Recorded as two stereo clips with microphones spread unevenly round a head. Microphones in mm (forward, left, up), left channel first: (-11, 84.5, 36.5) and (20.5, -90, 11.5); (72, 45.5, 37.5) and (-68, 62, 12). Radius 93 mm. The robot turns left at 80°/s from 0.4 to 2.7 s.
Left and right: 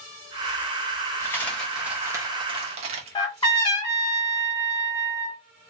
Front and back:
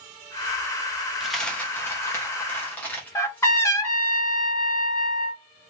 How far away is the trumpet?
About 1.3 m.